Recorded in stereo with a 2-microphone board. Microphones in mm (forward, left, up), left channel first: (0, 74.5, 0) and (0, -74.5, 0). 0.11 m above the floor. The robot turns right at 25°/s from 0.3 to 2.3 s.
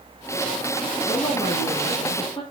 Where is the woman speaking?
90° left, 1.5 m; by 2.4 s 120° left, 1.5 m.